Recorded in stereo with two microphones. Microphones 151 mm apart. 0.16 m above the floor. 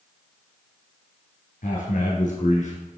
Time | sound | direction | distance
1.6 | a man speaking | 65° left (ahead or behind) | 2.5 m